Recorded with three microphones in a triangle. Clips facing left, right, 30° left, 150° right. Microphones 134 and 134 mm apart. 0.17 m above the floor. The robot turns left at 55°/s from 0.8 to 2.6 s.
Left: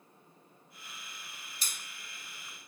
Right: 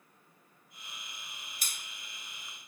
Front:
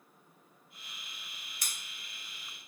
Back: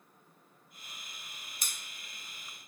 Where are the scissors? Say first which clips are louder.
Left 1 dB, even; 100° right, 1.2 m; by 1.7 s 105° right, 1.2 m.